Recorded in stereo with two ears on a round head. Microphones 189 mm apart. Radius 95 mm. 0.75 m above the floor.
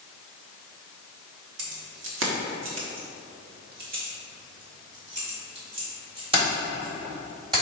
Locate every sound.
1.6 s keys jangling: 60° right (ahead or behind), 1.3 m; by 7.6 s 25° right (ahead or behind), 3.5 m